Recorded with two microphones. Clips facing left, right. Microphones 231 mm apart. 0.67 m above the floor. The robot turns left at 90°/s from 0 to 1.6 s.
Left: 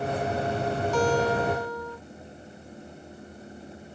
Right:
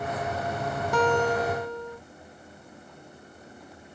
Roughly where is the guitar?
Right.